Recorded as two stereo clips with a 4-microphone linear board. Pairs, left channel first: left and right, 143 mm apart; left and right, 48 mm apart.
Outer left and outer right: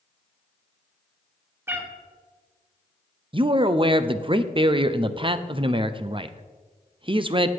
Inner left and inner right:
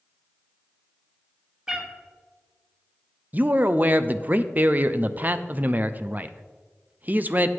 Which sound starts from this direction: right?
A man speaking, at 3.3 s.